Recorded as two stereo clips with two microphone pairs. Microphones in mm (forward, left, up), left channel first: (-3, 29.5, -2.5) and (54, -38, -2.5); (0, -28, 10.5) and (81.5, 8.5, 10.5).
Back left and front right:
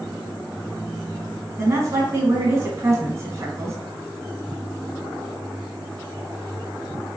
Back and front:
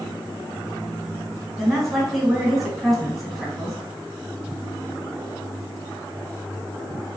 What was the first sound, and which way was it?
A woman speaking, 65° right.